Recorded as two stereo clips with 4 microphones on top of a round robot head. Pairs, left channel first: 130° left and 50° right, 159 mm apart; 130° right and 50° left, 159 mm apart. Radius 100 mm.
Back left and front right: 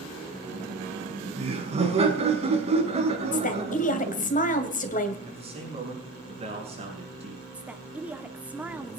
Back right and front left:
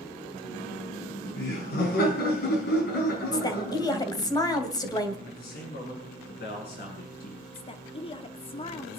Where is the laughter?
100° right, 5 m.